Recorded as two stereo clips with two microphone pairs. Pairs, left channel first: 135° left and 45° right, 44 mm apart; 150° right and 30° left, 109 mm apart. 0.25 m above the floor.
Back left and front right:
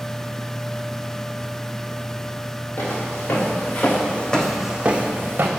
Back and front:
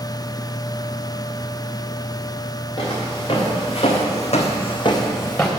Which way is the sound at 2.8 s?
160° left.